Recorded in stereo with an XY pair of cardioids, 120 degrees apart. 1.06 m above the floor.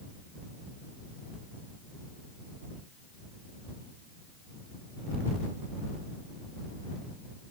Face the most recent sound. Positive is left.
No sound to turn to.